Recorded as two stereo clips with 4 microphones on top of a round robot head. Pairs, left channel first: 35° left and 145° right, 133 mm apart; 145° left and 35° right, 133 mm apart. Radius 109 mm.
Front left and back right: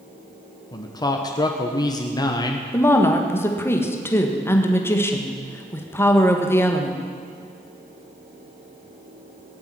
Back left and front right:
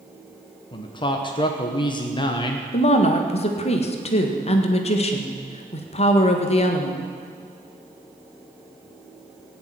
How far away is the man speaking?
About 1.2 m.